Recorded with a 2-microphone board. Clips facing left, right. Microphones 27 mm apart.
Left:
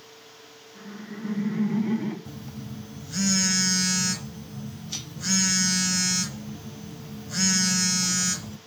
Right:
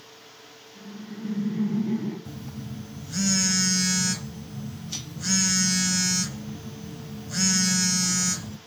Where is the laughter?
45° left (ahead or behind), 1.7 m; by 2.1 s 65° left (ahead or behind), 2.5 m.